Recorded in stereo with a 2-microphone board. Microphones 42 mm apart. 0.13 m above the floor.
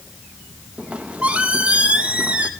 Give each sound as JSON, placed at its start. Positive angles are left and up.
{"t": 0.8, "sound": "a squeak", "side_deg": -30, "distance_m": 0.5}